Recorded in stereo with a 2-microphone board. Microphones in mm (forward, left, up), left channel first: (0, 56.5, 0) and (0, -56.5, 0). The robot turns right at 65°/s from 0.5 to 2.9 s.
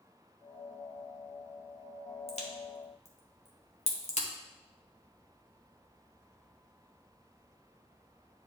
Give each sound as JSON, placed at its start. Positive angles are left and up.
{"t": 2.3, "sound": "a crack", "side_deg": 65, "distance_m": 1.2}